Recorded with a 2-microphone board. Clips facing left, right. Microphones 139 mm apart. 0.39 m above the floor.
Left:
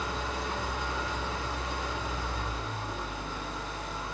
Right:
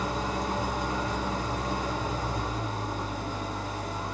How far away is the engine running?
About 1.1 m.